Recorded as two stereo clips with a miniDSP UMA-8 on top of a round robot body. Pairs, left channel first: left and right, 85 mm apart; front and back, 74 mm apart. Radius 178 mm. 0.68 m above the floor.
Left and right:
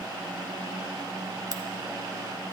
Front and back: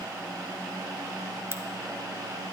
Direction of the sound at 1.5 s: 130° right.